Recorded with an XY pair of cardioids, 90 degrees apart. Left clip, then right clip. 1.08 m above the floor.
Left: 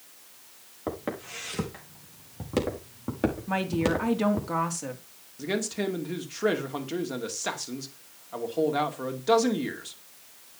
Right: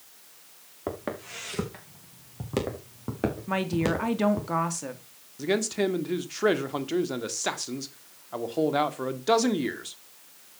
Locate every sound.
0.9 s footsteps: 15° right, 5.5 m; by 4.5 s 5° left, 4.5 m
3.5 s a woman speaking: 15° right, 2.5 m
5.4 s a man speaking: 30° right, 2 m